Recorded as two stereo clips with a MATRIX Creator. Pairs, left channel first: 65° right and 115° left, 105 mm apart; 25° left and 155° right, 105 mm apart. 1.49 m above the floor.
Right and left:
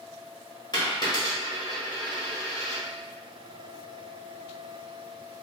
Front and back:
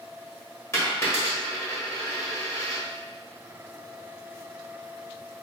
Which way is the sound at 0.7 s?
30° right.